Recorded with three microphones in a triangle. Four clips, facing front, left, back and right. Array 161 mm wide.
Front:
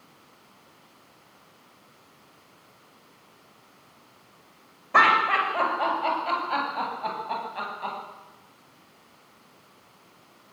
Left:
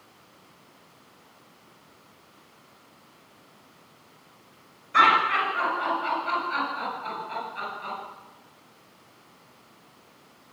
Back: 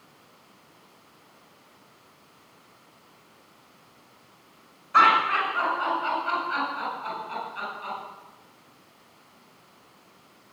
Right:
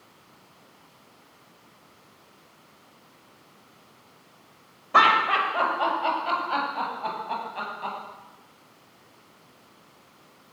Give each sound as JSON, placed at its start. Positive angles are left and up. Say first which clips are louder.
{"t": 4.9, "sound": "laughter", "louder": "right 1 dB, even", "azimuth_deg": -45, "distance_m": 7.0}